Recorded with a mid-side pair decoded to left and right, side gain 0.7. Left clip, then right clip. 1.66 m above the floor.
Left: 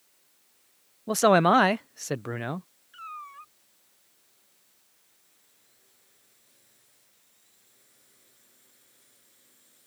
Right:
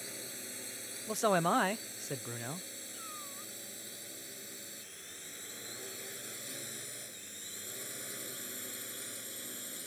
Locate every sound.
0.0 s a drone: 70° right; by 9.9 s 60° right
1.1 s a man speaking: 40° left
2.9 s a cat meowing: 45° left